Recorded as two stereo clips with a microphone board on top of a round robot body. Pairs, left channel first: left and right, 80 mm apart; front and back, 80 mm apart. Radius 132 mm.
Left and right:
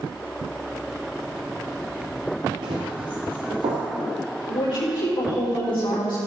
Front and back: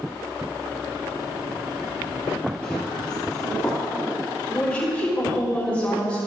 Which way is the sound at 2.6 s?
75° right.